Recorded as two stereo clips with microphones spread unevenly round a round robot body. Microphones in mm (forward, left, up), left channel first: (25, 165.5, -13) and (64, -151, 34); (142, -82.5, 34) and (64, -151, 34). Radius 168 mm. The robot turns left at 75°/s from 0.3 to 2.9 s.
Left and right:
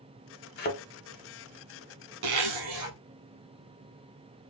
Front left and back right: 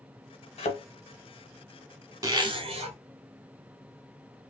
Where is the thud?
40° left, 0.7 m; by 0.8 s 25° left, 0.7 m.